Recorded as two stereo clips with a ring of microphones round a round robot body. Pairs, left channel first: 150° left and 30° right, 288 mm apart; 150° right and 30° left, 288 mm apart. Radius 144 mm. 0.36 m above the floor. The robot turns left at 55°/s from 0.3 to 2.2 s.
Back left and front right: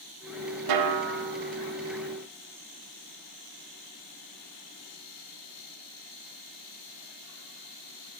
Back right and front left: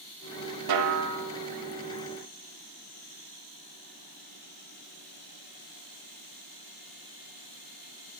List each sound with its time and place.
0.7 s a snare drum: 5° right, 0.5 m; by 1.2 s 35° right, 0.5 m